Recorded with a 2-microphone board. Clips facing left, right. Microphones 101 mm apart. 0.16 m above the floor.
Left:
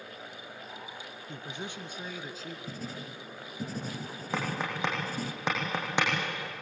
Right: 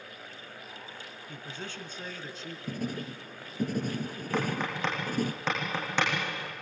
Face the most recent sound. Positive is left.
turn(degrees=15)  # may be behind; listen again after turning